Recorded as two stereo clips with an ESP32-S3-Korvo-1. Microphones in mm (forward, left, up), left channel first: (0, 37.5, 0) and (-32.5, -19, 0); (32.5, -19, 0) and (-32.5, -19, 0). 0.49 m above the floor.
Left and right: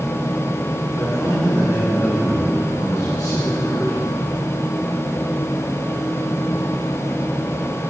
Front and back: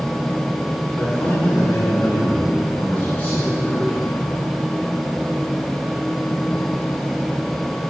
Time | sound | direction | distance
1.0 | a man speaking | 50° left | 3 m